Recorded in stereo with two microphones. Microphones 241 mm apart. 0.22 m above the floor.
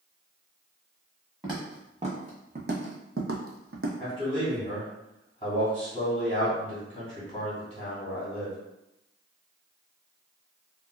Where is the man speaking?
25° left (ahead or behind), 1.7 m.